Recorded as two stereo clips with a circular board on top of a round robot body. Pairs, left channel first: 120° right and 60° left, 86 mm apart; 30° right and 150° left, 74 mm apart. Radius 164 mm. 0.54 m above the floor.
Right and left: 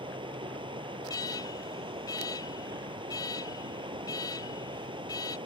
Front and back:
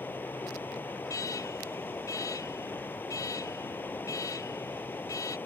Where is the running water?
35° left.